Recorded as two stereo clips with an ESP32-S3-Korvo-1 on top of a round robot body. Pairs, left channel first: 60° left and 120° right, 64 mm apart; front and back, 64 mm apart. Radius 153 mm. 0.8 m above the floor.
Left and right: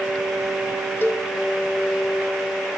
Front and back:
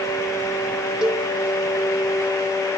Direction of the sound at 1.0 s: 105° left.